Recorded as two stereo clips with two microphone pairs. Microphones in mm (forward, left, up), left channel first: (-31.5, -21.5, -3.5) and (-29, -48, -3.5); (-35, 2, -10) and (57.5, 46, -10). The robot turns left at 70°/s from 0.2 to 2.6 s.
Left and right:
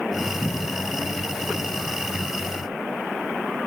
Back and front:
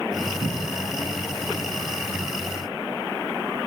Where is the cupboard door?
20° left, 1.5 m; by 0.9 s 15° right, 1.5 m.